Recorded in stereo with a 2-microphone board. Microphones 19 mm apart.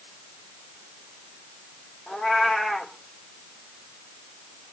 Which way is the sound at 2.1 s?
70° left (ahead or behind).